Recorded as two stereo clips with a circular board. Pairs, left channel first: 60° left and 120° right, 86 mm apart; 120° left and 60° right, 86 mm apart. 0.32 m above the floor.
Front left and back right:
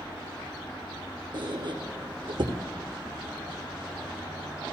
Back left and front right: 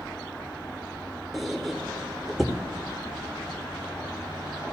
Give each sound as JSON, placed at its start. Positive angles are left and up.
{"t": 1.3, "sound": "a squeak", "azimuth_deg": -145, "distance_m": 1.2}